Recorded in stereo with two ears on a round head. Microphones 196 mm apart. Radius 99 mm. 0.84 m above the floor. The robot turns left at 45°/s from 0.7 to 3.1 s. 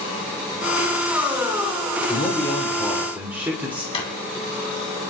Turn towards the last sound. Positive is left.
turn(degrees=25)  # may be behind; listen again after turning